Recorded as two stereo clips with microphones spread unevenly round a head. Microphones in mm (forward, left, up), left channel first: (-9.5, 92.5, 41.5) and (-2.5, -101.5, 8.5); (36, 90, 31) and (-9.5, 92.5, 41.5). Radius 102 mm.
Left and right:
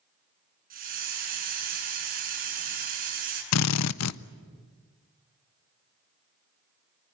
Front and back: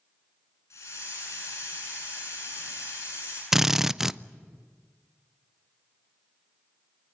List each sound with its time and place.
0.7 s a hiss: 40° right, 7 m
3.5 s a drill: 95° left, 0.6 m